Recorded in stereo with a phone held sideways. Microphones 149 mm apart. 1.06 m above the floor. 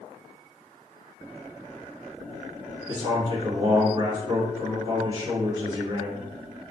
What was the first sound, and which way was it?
A man speaking, 35° right (ahead or behind).